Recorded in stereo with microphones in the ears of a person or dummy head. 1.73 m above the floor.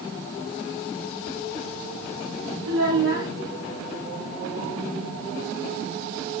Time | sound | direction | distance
2.6 | a child speaking | 45° right (ahead or behind) | 0.8 m